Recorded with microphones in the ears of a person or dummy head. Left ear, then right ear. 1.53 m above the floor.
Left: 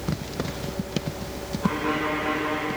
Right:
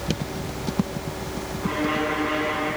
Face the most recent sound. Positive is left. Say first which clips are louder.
# right 1 dB
turn(degrees=10)  # may be behind; listen again after turning